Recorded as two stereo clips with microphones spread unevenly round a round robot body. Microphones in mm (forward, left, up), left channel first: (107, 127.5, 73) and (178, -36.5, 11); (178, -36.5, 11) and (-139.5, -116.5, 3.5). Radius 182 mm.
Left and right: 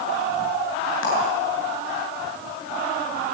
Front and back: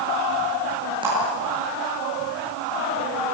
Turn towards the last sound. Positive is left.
turn(degrees=115)